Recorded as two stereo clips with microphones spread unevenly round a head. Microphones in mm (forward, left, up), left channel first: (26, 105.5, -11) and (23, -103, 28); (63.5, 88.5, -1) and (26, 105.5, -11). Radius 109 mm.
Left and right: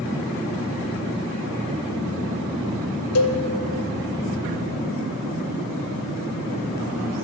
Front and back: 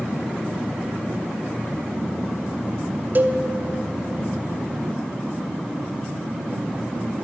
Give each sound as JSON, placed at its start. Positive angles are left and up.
{"t": 3.1, "sound": "a cowbell", "azimuth_deg": 105, "distance_m": 0.5}